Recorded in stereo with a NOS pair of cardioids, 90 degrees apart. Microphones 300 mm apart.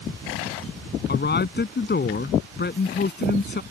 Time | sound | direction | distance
1.1 | a man speaking | 35° left | ?